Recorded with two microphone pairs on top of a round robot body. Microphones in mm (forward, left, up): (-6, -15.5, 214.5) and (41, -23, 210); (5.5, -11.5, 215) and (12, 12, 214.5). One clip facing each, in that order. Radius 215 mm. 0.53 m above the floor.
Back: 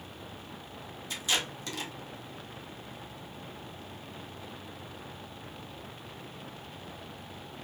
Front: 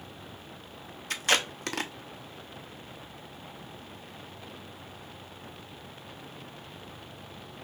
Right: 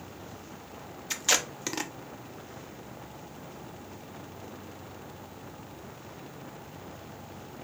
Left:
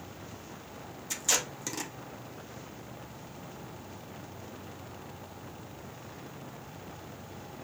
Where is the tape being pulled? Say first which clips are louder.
Front 5 dB, right 3 dB; 45° right, 0.6 m.